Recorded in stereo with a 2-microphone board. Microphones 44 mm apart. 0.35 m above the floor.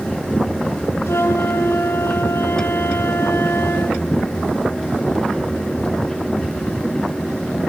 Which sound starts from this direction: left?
A flute, at 1.1 s.